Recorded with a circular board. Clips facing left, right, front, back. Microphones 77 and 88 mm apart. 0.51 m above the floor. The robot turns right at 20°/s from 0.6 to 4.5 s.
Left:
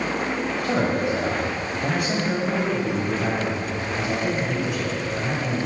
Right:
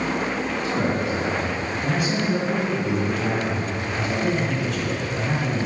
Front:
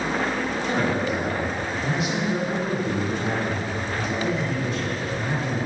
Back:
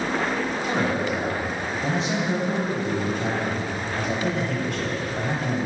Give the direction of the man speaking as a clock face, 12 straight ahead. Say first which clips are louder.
Left 2 dB, front 1 dB; 9 o'clock.